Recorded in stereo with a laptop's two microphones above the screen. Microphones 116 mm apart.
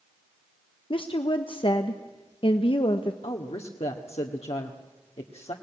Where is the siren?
No siren in this recording.